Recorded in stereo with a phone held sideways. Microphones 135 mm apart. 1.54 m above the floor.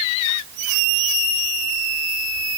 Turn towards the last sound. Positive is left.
No sound to turn to.